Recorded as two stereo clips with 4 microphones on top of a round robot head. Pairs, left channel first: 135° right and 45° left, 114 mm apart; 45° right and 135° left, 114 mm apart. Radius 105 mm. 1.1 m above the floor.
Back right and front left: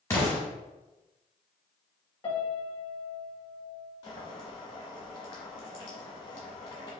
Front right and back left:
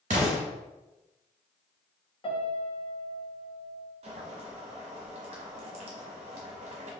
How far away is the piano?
About 0.7 m.